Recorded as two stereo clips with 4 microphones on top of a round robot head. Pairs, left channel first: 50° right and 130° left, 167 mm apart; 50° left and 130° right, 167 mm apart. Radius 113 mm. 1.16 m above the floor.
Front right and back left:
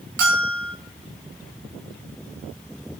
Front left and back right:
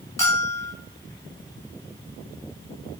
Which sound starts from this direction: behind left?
A bell, at 0.2 s.